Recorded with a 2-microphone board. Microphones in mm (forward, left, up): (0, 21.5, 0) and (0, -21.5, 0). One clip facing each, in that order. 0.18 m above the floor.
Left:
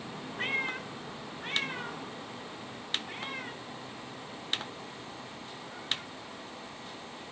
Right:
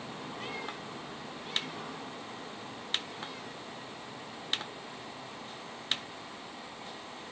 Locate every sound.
0.4 s a cat meowing: 45° left (ahead or behind)